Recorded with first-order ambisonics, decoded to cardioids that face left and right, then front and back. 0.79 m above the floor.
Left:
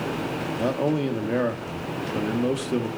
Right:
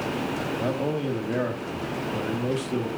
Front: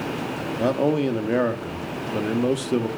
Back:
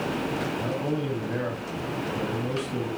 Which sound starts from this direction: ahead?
A man speaking, at 0.6 s.